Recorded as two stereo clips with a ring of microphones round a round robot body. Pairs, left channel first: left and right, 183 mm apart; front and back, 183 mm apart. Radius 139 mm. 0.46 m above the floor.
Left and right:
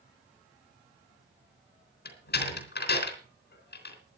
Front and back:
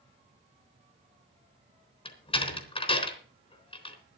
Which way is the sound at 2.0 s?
60° left.